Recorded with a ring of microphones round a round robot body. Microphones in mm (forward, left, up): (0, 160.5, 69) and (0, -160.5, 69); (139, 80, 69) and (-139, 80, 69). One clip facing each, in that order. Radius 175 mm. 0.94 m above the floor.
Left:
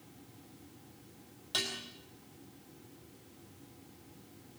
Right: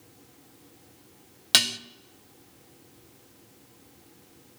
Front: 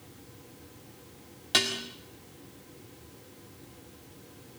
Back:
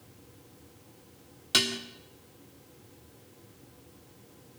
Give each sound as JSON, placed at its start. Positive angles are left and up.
{"t": 1.5, "sound": "dishes clattering", "azimuth_deg": -100, "distance_m": 1.5}